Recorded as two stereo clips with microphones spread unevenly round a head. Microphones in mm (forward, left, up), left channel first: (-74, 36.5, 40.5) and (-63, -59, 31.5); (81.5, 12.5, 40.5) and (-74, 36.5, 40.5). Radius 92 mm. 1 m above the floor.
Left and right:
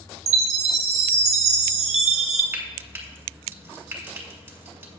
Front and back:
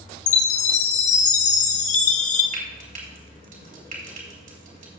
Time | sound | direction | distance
0.3 | a chime | 60° right | 0.9 m
2.5 | frying | 150° right | 3 m